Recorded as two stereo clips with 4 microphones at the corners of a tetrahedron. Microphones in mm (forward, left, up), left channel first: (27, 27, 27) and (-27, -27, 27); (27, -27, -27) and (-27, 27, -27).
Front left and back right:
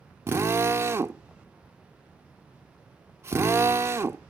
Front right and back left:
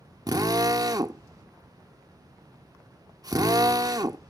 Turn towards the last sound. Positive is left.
turn(degrees=170)